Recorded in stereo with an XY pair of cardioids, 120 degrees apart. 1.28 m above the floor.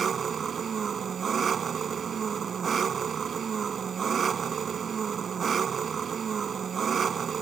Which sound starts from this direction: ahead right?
An engine running, at 0.0 s.